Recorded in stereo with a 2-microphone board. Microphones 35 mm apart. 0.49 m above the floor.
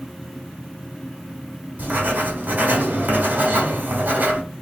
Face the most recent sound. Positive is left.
turn(degrees=-50)  # may be behind; listen again after turning